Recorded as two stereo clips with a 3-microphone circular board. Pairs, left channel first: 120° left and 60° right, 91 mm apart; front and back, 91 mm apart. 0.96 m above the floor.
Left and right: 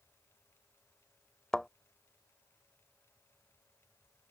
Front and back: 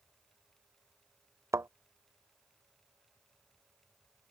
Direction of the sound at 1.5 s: 160° right.